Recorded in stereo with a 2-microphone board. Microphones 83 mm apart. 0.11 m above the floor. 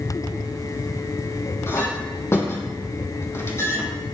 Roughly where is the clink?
Left.